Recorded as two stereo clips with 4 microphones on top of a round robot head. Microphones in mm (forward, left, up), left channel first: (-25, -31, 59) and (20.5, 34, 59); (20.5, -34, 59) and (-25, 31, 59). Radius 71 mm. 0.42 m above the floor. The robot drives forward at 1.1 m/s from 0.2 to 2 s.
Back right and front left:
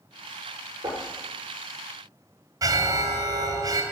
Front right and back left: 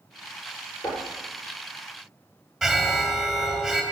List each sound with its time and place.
0.8 s knocking: straight ahead, 7.5 m
2.6 s an alarm: 35° left, 3 m